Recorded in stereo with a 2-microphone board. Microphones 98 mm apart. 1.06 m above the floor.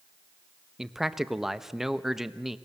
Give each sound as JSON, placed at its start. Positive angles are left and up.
{"t": 0.8, "sound": "a man speaking", "side_deg": -5, "distance_m": 1.0}